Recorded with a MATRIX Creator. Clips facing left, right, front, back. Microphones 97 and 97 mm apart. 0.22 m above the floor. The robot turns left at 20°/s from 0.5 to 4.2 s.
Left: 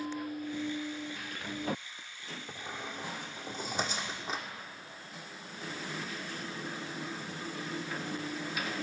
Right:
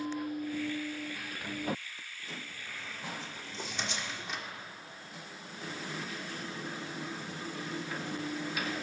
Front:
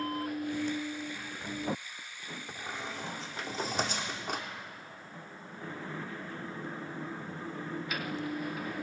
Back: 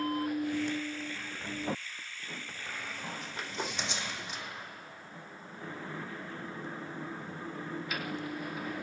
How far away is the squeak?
About 0.9 m.